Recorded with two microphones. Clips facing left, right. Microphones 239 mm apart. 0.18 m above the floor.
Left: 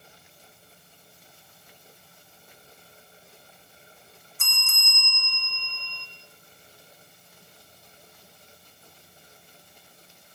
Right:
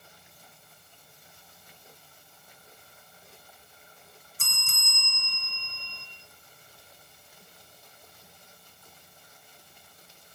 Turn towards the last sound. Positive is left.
turn(degrees=-40)  # may be behind; listen again after turning